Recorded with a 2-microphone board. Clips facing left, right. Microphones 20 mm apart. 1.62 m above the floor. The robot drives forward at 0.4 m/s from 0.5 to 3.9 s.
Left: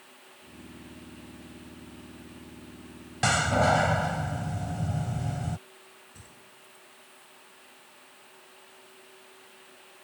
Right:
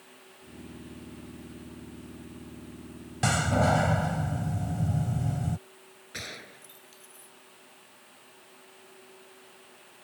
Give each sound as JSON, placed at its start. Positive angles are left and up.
{"t": 3.2, "sound": "a door slam", "side_deg": 15}
{"t": 6.1, "sound": "a gunshot", "side_deg": -85}